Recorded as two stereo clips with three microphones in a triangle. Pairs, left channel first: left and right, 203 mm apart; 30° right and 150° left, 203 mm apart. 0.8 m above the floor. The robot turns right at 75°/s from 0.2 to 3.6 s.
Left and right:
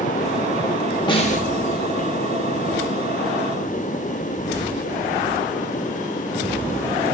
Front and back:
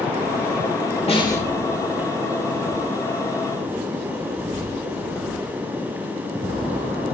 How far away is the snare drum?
About 1.3 m.